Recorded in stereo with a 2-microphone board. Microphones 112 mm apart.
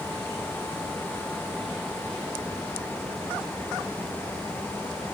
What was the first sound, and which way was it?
Only background noise.